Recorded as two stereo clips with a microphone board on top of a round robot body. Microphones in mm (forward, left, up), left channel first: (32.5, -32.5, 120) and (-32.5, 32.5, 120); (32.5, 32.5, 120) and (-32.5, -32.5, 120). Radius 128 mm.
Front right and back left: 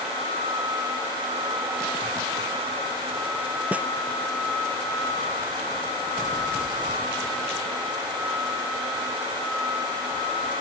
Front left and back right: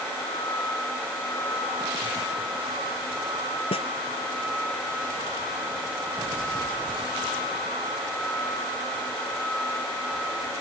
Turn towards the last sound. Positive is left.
turn(degrees=60)